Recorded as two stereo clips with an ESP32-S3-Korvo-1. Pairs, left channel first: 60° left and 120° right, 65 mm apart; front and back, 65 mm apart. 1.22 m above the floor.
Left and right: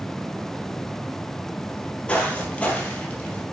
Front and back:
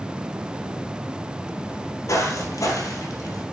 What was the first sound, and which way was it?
Footsteps, 10° right.